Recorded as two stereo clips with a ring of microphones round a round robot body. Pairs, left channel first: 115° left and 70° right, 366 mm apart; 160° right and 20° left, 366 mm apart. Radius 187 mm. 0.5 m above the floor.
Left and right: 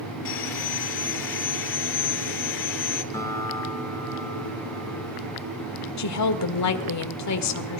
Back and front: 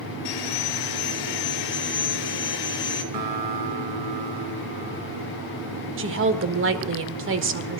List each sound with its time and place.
0.2 s sawing: 170° left, 1.8 m
3.1 s a guitar: 30° left, 1.9 m
6.0 s a woman speaking: 75° left, 1.5 m